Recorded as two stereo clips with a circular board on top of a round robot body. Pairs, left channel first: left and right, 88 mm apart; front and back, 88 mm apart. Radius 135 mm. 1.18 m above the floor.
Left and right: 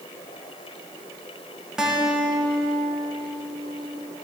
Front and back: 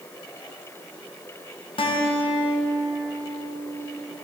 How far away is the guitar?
About 2 m.